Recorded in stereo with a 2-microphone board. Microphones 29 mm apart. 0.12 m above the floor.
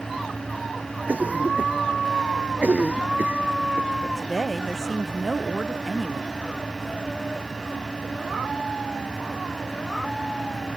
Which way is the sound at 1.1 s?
65° right (ahead or behind).